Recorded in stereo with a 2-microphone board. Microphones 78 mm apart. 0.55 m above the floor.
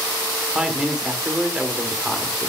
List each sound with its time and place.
0.6 s a man speaking: 10° right (ahead or behind), 1.8 m